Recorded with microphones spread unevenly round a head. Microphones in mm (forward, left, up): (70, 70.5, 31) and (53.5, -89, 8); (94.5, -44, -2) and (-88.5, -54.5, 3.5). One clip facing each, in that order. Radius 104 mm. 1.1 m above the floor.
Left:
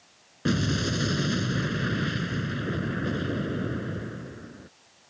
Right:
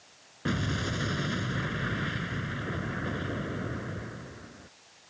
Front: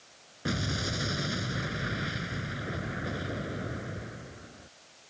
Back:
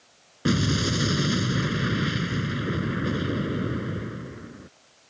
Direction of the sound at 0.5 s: 145° left.